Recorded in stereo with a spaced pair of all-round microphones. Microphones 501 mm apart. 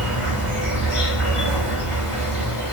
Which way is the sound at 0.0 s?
80° left.